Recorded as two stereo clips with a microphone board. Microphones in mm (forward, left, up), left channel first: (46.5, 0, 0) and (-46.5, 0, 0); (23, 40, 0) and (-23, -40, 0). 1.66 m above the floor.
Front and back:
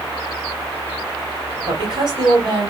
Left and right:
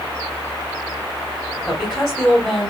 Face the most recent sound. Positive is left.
turn(degrees=145)